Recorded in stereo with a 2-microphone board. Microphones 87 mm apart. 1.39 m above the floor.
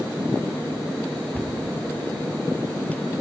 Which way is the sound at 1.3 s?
15° left (ahead or behind).